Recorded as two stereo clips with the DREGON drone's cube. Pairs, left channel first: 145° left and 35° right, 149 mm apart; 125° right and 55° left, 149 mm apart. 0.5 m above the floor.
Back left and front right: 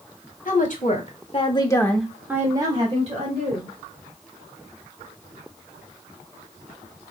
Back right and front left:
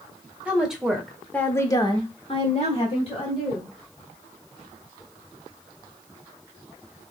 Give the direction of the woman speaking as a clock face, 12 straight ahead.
7 o'clock.